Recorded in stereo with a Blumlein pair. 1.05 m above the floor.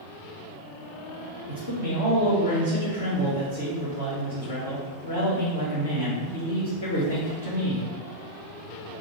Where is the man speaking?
65° left, 1.3 m.